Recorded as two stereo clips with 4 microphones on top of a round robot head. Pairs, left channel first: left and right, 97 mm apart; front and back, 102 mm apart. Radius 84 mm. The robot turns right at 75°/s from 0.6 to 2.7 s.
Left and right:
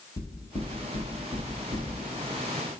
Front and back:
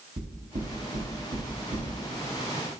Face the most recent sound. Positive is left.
turn(degrees=-60)